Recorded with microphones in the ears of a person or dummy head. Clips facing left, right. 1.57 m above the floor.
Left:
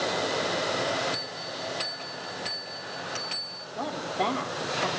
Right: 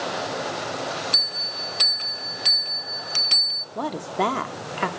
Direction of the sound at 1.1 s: 55° right (ahead or behind).